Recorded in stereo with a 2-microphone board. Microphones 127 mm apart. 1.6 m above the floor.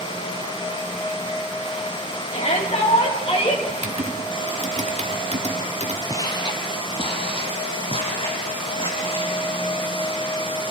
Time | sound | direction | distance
2.3 | a shout | 60° left (ahead or behind) | 4.5 m
3.7 | typing on a keyboard | 60° right (ahead or behind) | 1.8 m
6.1 | footsteps | 25° left (ahead or behind) | 1.8 m